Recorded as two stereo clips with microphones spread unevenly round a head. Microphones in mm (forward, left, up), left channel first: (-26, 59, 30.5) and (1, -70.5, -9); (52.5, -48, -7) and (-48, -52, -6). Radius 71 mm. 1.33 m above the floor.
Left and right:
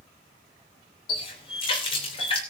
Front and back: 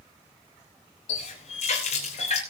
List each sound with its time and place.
1.1 s a running tap: 50° left, 3 m